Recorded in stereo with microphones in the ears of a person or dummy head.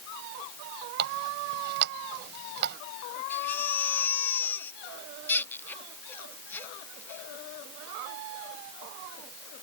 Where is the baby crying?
10° left (ahead or behind).